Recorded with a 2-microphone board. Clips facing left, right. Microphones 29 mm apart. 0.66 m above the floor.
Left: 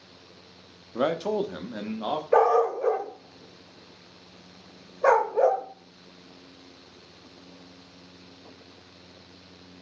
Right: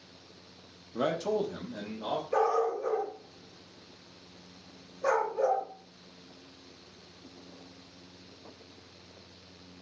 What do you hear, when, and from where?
0.9 s a man speaking: 20° left (ahead or behind), 0.5 m; by 2.2 s 50° left (ahead or behind), 1.1 m
2.3 s a dog barking: 70° left (ahead or behind), 0.7 m